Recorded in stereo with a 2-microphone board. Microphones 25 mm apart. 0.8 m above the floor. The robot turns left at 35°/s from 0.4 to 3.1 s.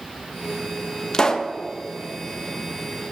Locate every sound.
1.1 s a pop: 30° left (ahead or behind), 0.7 m; by 1.5 s 15° left (ahead or behind), 0.7 m